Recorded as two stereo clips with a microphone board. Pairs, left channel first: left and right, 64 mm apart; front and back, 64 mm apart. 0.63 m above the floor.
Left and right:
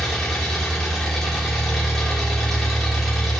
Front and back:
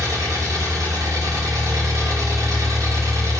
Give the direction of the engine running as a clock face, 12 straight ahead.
6 o'clock.